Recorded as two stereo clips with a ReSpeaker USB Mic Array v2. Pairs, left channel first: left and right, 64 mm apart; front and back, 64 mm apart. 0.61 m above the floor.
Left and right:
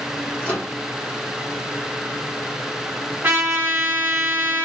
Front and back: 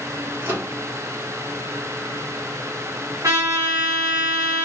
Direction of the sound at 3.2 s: 155° right.